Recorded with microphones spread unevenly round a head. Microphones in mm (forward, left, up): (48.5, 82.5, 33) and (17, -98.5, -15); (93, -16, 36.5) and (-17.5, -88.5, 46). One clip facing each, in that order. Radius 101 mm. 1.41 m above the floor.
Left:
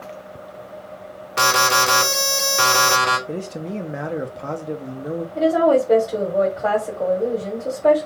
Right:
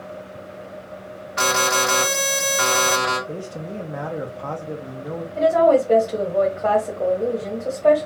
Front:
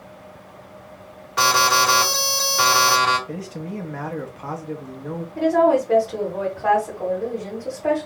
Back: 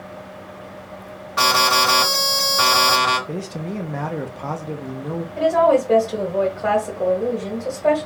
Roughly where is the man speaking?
Behind left.